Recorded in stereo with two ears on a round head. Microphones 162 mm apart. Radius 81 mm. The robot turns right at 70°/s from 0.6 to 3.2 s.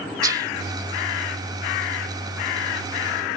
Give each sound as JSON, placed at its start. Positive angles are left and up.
{"t": 0.2, "sound": "whispering", "side_deg": -20}